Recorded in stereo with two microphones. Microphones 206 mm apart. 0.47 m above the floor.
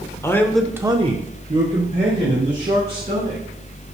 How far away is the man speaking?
About 1.1 m.